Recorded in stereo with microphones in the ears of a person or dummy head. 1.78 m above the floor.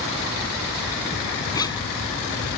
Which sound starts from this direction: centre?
A zipper, at 1.6 s.